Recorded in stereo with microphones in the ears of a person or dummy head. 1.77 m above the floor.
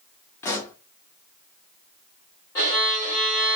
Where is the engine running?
No engine running in this recording.